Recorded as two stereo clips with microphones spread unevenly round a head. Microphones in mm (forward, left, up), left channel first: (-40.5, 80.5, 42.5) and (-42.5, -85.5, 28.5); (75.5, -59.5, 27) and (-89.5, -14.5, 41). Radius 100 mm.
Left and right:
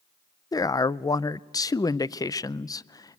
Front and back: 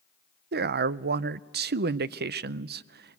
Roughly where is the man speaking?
Behind.